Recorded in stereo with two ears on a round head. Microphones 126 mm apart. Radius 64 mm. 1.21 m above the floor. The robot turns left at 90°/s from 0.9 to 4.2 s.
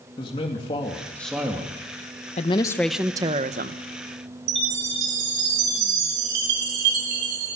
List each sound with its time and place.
0.2 s a man speaking: 35° left, 2.5 m; by 1.8 s 40° right, 2.5 m
2.4 s a woman speaking: 50° left, 1.0 m; by 3.8 s 80° right, 1.0 m
4.5 s a chime: 80° right, 4.5 m